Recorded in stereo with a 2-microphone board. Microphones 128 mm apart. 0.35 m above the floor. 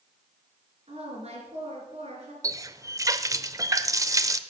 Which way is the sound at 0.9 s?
55° right (ahead or behind).